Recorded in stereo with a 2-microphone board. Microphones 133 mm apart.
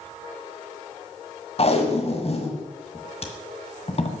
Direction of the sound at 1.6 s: 45° left (ahead or behind).